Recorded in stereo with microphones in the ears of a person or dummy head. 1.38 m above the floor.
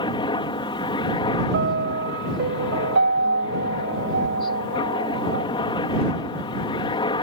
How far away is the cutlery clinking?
I don't hear cutlery clinking.